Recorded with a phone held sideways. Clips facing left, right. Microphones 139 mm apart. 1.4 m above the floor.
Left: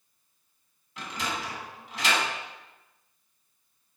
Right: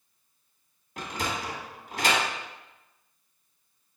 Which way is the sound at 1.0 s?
45° right (ahead or behind).